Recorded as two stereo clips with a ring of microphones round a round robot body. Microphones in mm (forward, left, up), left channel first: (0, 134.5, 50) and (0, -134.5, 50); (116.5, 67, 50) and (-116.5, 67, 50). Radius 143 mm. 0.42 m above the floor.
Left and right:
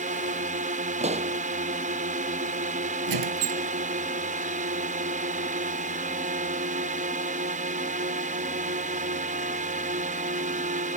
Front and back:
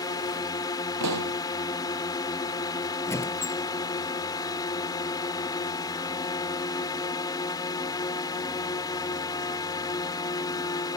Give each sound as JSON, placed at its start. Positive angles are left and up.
{"t": 0.0, "sound": "a drone", "azimuth_deg": -60}
{"t": 1.0, "sound": "a pop", "azimuth_deg": -155}
{"t": 3.1, "sound": "a squeak", "azimuth_deg": -80}